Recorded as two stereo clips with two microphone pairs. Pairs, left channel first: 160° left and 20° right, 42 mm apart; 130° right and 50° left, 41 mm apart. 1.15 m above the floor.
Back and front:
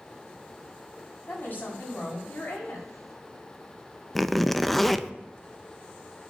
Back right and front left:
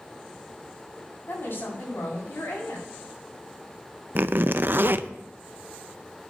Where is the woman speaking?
155° right, 6.5 m.